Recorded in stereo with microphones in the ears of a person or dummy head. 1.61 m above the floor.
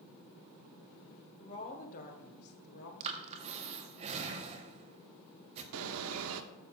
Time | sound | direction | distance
1.4 | a woman speaking | 35° left (ahead or behind) | 1.3 m
3.0 | breathing | 30° right (ahead or behind) | 1.0 m
5.7 | a bird | 65° right (ahead or behind) | 0.8 m